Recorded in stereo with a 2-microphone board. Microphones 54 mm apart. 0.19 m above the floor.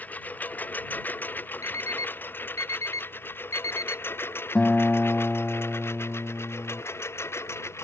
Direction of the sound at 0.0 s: 30° left (ahead or behind).